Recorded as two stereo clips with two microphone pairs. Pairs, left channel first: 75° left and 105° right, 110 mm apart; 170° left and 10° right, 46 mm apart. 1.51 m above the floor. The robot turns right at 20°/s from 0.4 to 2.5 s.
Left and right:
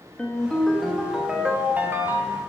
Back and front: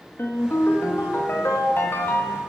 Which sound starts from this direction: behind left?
A ringtone, at 0.2 s.